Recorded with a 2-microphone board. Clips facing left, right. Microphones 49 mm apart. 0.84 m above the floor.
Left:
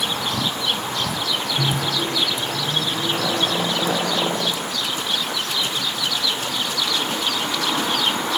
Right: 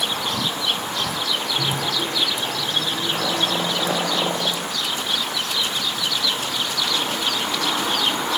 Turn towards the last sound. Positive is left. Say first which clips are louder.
# left 1 dB
turn(degrees=45)  # may be behind; listen again after turning